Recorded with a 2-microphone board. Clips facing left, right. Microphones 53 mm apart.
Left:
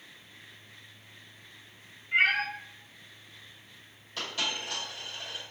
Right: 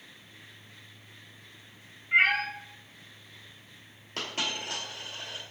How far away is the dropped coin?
About 2.0 m.